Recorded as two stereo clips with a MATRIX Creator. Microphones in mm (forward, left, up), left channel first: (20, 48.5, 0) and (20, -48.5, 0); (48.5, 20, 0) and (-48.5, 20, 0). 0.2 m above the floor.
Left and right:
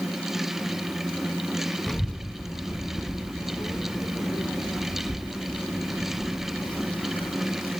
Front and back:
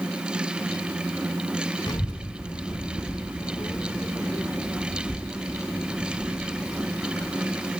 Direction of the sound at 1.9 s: 5° left.